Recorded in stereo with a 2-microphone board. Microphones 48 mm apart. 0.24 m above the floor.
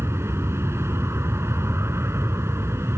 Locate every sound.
0.0 s an aircraft: 60° right (ahead or behind)